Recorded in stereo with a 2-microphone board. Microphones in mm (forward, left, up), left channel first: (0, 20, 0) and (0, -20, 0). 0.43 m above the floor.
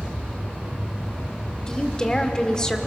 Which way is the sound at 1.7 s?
20° left (ahead or behind).